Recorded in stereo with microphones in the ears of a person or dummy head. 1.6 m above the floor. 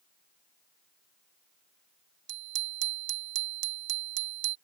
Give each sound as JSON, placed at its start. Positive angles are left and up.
{"t": 2.3, "sound": "a bicycle bell", "side_deg": -70}